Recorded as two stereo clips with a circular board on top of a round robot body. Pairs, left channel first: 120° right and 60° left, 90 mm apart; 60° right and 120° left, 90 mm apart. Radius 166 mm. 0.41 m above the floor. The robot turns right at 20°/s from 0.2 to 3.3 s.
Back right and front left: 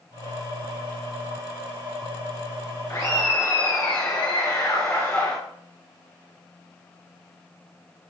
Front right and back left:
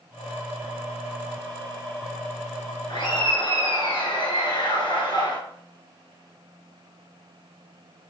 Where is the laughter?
65° right, 2.0 m; by 5.4 s 60° right, 2.0 m.